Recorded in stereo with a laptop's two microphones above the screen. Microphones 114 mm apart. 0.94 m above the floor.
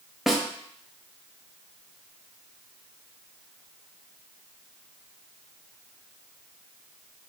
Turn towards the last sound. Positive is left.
turn(degrees=0)  # may be behind; listen again after turning